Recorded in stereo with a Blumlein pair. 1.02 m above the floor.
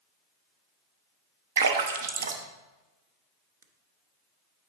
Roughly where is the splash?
Ahead right.